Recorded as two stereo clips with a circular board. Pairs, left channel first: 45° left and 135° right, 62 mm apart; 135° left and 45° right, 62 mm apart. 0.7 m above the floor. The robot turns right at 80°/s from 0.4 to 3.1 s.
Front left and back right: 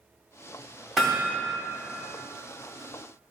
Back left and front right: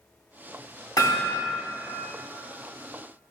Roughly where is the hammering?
Behind left.